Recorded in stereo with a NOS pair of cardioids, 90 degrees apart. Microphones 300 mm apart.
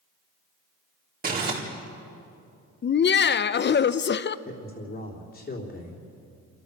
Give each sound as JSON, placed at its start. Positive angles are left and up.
{"t": 1.2, "sound": "crumpling", "azimuth_deg": -30, "distance_m": 4.5}
{"t": 2.8, "sound": "laughter", "azimuth_deg": 40, "distance_m": 0.8}
{"t": 4.5, "sound": "a man speaking", "azimuth_deg": 35, "distance_m": 3.5}